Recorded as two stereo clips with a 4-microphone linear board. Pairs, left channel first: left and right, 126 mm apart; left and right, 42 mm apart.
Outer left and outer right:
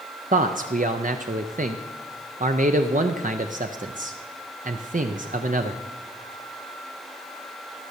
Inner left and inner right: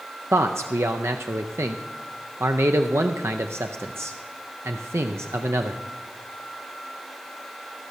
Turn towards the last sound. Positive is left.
turn(degrees=-75)  # may be behind; listen again after turning